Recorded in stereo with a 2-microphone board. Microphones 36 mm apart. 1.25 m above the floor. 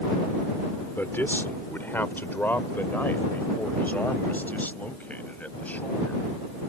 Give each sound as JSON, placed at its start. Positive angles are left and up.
{"t": 1.0, "sound": "a man speaking", "side_deg": 85}